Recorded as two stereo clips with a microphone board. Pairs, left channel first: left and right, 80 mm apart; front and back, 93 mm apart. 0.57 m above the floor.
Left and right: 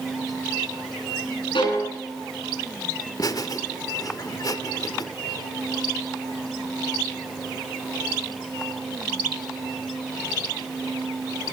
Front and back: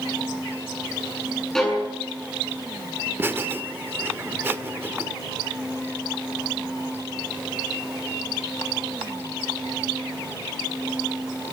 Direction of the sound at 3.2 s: 120° left.